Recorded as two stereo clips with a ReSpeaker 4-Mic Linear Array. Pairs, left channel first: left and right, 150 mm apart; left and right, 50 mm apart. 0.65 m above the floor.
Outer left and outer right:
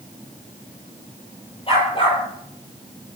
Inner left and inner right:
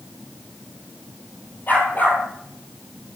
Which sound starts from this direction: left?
A dog barking, at 1.7 s.